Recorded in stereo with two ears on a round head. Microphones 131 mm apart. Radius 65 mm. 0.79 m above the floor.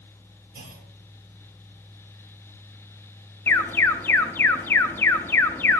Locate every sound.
0.5 s a clunk: 65° right (ahead or behind), 1.6 m
3.5 s an alarm: 15° left (ahead or behind), 0.7 m